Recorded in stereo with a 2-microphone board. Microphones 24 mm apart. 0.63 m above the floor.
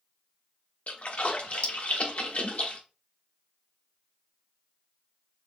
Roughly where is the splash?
Left.